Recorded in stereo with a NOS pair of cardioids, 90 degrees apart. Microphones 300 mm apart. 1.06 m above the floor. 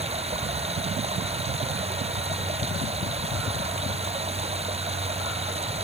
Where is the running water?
20° right.